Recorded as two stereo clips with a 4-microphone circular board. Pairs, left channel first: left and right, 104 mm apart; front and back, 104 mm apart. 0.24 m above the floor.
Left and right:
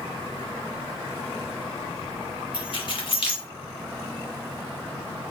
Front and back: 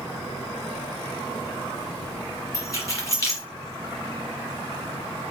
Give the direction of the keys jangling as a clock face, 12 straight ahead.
10 o'clock.